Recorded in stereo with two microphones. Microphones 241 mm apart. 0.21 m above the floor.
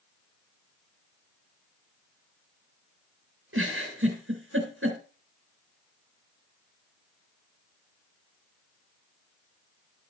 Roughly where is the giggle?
Right.